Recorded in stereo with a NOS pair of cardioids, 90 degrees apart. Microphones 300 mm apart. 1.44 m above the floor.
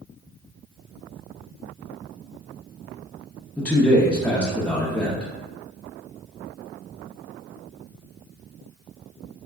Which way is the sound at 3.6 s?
5° left.